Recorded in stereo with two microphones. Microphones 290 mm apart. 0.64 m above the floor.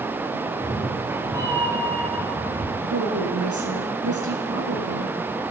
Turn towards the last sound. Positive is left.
turn(degrees=-80)